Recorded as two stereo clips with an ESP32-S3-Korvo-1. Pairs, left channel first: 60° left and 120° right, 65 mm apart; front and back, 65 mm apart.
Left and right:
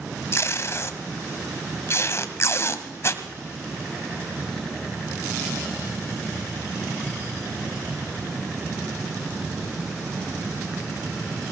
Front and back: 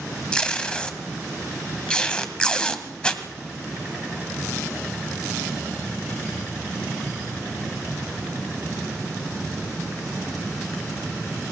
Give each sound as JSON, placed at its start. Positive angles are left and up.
{"t": 0.3, "sound": "tape being pulled", "azimuth_deg": 70, "distance_m": 1.7}